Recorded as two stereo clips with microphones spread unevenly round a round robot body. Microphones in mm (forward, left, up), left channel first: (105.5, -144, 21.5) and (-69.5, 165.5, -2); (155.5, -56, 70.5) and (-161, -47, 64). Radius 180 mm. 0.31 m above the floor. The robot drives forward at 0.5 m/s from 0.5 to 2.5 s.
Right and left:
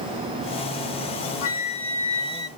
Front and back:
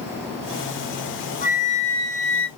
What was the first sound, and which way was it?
A flute, 45° right.